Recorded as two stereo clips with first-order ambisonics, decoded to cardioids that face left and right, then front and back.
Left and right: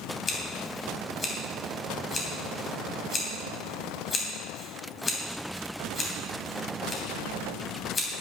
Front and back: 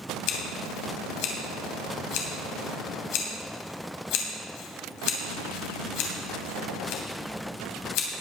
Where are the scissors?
20° left, 3 m.